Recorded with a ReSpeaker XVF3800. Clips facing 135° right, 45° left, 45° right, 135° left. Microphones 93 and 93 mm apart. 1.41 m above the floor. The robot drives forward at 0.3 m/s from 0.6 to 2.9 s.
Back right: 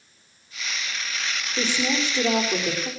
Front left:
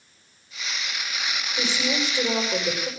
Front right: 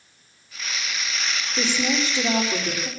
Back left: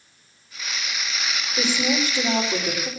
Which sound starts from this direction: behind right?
A woman speaking, at 1.6 s.